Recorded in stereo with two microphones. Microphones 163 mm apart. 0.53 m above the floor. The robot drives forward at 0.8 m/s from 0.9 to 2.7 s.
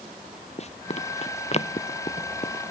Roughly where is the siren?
I don't hear a siren.